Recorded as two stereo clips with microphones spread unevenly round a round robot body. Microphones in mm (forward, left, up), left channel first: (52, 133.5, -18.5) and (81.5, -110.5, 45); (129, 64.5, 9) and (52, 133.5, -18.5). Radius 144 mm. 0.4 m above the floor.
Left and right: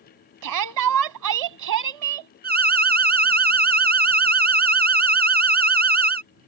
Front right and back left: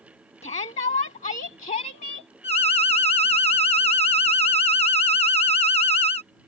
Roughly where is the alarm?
Ahead right.